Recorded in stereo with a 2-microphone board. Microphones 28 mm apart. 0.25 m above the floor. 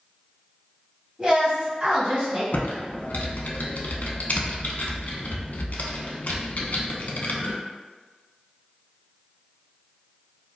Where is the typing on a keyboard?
70° left (ahead or behind), 0.5 m.